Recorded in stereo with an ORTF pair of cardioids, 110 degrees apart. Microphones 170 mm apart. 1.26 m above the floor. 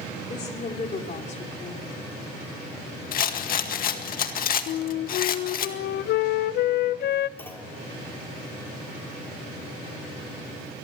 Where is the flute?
65° left, 0.6 m.